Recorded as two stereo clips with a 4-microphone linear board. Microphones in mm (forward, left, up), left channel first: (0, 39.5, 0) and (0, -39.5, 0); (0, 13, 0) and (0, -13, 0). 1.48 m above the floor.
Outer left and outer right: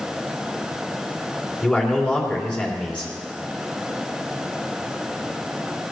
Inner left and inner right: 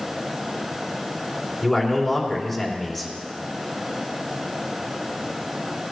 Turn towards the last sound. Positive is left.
turn(degrees=10)  # may be behind; listen again after turning